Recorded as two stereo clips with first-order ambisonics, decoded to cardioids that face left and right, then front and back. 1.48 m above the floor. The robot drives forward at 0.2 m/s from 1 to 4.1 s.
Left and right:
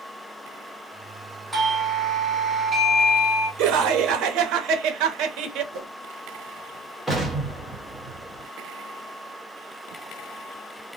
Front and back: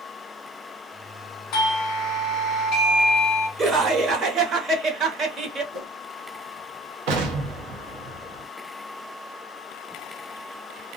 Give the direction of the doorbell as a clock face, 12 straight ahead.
12 o'clock.